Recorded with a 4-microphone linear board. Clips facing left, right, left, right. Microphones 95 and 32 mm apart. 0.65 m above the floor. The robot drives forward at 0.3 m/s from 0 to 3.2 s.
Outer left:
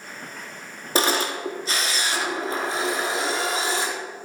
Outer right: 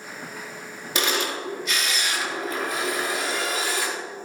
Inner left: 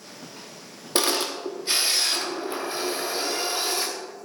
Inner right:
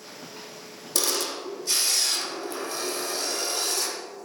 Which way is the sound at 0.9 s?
35° left (ahead or behind).